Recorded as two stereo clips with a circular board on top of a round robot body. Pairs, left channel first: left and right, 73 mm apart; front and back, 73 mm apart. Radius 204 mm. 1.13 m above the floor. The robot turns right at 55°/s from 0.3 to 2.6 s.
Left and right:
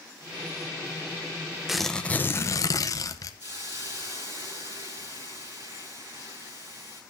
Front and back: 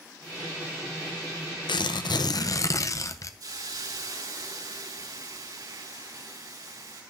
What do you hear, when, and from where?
1.7 s tearing paper: 5° right, 0.9 m; by 3.3 s 45° left, 0.9 m
3.4 s a hiss: 150° right, 6 m